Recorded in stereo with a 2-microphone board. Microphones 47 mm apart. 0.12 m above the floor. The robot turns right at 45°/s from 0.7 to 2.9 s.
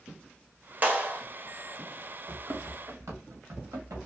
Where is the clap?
35° right (ahead or behind), 1.0 m.